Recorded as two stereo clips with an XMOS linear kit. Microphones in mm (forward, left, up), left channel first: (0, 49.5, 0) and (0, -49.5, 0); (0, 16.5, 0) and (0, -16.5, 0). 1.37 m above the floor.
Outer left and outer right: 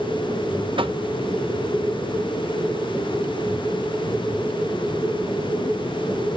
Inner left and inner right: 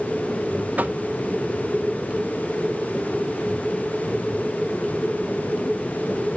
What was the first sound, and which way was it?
Knocking, 60° right (ahead or behind).